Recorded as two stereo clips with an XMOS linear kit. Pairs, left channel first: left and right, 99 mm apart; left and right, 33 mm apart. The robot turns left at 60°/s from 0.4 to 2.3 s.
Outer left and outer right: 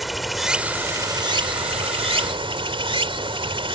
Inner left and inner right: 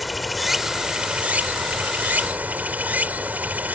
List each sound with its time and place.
0.0 s running water: straight ahead; by 3.8 s 115° right